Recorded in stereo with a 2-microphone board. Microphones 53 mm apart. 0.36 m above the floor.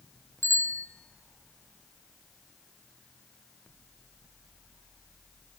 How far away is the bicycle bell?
About 3.5 m.